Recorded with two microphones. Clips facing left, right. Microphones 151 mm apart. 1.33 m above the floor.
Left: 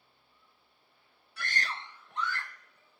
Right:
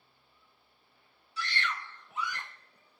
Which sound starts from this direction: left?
A scream, at 1.4 s.